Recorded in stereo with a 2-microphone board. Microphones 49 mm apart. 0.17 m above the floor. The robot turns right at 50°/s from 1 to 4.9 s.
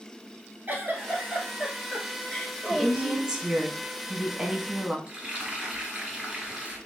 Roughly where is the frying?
Right.